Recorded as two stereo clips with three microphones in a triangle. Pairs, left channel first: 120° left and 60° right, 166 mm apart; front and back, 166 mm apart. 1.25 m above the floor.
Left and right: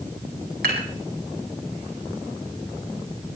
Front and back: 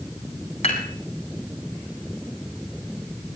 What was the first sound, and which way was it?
Dishes clattering, 50° right.